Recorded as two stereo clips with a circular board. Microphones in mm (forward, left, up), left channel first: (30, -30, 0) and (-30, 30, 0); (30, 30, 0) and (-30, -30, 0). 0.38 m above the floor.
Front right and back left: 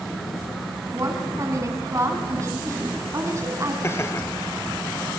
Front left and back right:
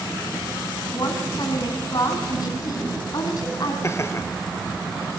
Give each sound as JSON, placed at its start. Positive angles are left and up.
{"t": 0.9, "sound": "a woman speaking", "azimuth_deg": 85, "distance_m": 4.0}
{"t": 3.8, "sound": "laughter", "azimuth_deg": 0, "distance_m": 1.2}